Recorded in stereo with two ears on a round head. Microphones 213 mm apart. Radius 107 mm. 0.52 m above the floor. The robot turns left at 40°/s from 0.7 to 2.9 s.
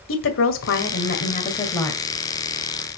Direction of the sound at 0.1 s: 60° left.